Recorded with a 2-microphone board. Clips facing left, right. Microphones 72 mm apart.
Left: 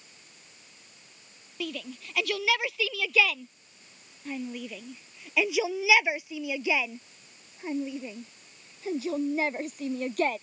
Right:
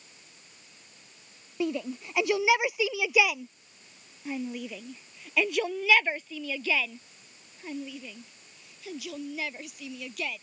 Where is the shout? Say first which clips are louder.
Right 6 dB; 25° right (ahead or behind); by 10.4 s 45° left (ahead or behind).